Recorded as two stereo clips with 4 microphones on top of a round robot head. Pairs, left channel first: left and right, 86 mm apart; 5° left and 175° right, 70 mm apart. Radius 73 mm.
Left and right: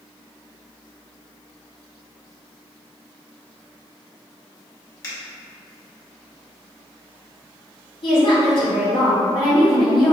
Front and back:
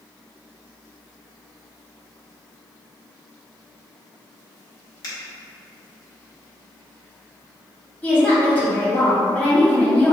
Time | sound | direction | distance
5.0 | a finger snap | 40° left | 2.0 m
8.0 | a woman speaking | 75° left | 1.9 m